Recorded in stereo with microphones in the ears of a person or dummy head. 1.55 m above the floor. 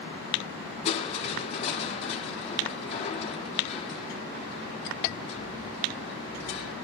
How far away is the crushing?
About 1.5 m.